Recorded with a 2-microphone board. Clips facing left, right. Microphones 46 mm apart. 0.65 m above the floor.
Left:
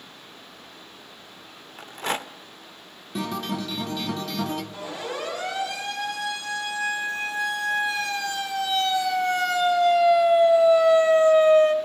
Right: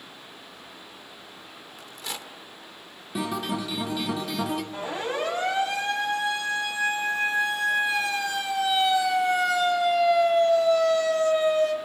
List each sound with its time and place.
1.8 s a rattle: 45° left (ahead or behind), 0.6 m
3.1 s a guitar: 5° right (ahead or behind), 1.3 m
4.7 s a siren: 30° right (ahead or behind), 5.5 m; by 11.8 s 40° left (ahead or behind), 1.5 m